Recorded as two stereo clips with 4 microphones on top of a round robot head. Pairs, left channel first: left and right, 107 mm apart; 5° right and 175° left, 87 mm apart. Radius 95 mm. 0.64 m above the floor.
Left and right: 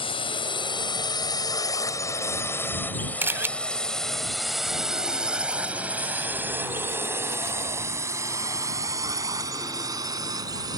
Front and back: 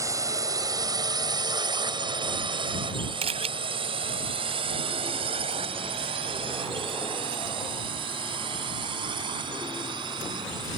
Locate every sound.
0.0 s a drone: 125° left; by 10.8 s 145° right
3.2 s a camera shutter: 160° right